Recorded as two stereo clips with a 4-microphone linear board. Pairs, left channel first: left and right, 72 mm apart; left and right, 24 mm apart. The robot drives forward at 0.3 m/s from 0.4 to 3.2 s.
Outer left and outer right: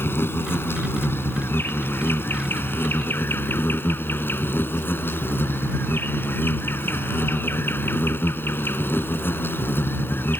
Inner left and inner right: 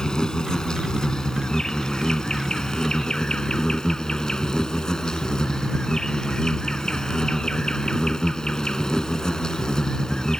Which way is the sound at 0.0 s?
30° left (ahead or behind).